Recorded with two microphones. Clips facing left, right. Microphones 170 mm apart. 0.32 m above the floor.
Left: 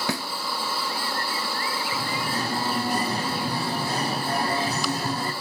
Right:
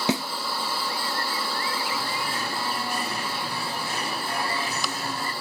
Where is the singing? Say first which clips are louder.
Left 2 dB; 35° left (ahead or behind), 1.2 m.